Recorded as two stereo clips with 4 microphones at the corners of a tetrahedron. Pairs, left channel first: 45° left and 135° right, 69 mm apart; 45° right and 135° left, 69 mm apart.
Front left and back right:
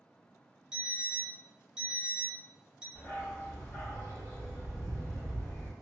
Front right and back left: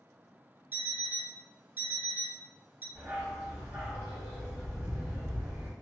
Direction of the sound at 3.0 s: 75° left.